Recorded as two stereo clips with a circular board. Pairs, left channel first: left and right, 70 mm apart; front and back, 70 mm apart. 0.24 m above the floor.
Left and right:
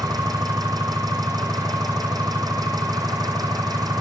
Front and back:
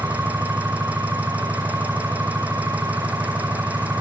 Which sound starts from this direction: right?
An engine running, at 0.0 s.